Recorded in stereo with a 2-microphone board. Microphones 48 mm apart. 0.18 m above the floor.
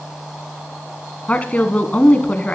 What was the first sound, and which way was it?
A woman speaking, 30° left (ahead or behind).